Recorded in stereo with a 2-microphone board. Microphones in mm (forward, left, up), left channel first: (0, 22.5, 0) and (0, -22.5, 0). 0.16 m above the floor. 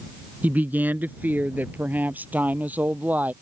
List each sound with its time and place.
0.4 s a woman speaking: 40° right (ahead or behind)